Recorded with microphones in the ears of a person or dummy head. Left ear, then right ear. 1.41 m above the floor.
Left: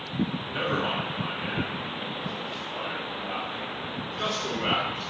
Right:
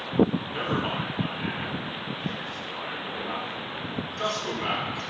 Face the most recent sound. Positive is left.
turn(degrees=-75)  # may be behind; listen again after turning